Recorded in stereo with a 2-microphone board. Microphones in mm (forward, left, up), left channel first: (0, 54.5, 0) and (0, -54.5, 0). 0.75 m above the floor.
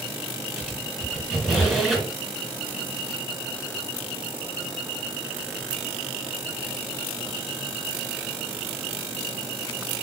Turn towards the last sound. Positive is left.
turn(degrees=0)  # may be behind; listen again after turning